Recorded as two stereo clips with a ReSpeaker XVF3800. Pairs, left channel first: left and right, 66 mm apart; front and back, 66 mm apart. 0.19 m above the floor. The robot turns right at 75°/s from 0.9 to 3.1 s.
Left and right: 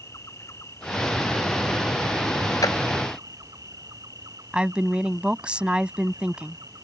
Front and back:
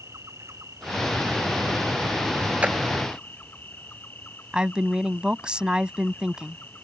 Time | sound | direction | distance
0.0 | an insect | 135° left | ?
2.6 | a clap | 110° left | ?
4.5 | a woman speaking | 130° right | ?